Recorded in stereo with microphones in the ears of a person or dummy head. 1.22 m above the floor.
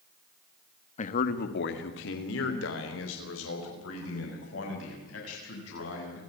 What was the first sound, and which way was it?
A man speaking, 35° left (ahead or behind).